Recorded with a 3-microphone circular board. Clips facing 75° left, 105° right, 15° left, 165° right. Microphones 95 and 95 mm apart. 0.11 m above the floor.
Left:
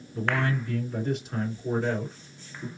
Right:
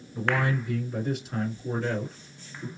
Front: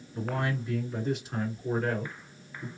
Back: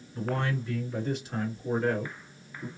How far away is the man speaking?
About 1.8 m.